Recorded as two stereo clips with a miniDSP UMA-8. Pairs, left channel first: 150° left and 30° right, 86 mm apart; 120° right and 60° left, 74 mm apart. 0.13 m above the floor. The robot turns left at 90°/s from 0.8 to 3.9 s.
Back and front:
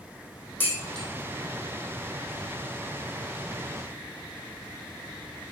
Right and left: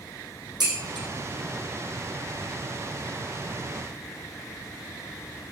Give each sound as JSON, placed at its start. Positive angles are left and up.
{"t": 0.6, "sound": "dishes clattering", "azimuth_deg": 80, "distance_m": 3.5}